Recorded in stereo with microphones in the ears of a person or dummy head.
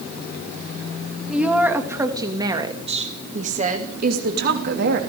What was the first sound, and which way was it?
A woman speaking, centre (ahead or behind).